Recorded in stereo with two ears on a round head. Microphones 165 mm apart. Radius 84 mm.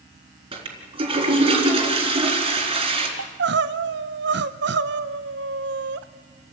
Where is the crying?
65° right (ahead or behind), 0.8 m.